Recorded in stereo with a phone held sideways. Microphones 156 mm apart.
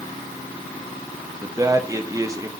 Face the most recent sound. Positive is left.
turn(degrees=-20)  # may be behind; listen again after turning